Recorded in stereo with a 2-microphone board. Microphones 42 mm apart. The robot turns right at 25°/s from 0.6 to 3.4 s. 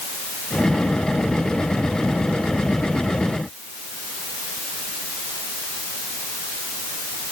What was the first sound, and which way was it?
Only background noise.